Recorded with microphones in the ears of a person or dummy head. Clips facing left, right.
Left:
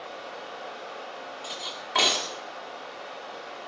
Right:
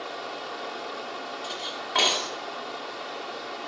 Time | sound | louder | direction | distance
0.0 | running water | right 3 dB | 65° right (ahead or behind) | 1.7 m
1.4 | cutlery clinking | right 3 dB | centre (ahead or behind) | 1.7 m